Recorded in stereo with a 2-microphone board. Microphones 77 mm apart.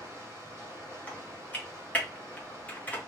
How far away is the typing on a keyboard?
About 0.9 m.